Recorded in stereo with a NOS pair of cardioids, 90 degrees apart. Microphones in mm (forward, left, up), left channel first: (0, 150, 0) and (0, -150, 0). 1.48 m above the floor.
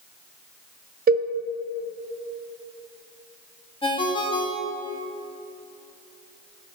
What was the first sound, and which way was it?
A cowbell, 30° right.